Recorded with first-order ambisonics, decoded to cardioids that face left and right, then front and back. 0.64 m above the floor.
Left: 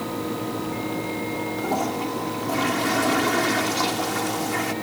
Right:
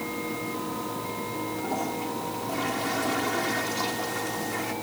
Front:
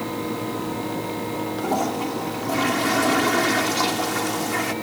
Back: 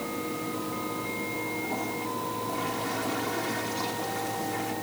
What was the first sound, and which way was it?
A toilet flushing, 30° left.